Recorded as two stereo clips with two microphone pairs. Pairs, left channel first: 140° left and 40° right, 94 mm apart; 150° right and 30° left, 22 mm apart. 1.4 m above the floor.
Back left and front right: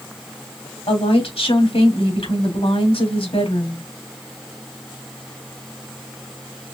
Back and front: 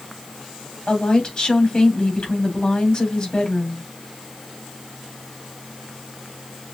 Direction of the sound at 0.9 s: 145° left.